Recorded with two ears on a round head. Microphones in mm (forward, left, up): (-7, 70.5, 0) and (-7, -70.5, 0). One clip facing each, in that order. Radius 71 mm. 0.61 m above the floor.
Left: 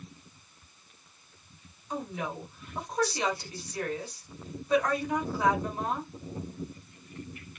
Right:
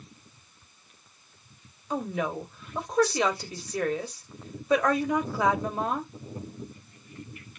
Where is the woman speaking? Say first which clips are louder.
Right 5 dB; 55° right (ahead or behind), 1.2 m.